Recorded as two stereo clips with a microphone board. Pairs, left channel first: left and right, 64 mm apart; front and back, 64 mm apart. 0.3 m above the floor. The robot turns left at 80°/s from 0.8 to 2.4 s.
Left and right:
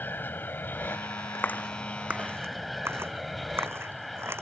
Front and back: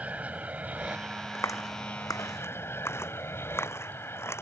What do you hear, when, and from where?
0.0 s an aircraft: 125° left; by 4.4 s straight ahead
1.4 s a clap: 40° left; by 4.4 s 45° right